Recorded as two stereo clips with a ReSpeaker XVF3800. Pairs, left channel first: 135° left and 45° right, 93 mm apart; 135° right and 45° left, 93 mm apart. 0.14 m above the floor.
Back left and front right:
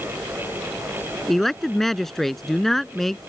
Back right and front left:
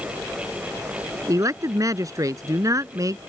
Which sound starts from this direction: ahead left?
A man speaking, at 1.3 s.